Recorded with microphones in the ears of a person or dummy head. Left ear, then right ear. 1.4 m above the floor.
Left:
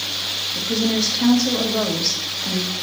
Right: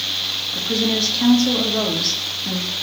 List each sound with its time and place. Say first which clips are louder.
0.6 s a woman speaking: right 2 dB; 5° right (ahead or behind), 2 m